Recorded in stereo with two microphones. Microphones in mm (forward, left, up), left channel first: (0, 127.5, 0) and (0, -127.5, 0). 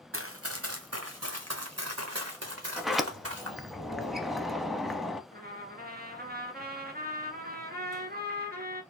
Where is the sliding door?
Centre (ahead or behind), 0.6 m.